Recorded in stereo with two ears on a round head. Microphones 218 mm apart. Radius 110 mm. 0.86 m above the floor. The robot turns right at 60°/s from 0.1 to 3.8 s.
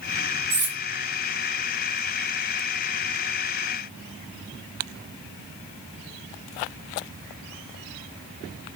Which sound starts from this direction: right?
Cutlery clinking, at 0.5 s.